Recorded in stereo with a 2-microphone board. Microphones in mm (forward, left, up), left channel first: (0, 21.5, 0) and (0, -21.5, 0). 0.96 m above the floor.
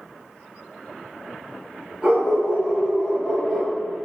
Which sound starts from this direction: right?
A dog barking, at 2.0 s.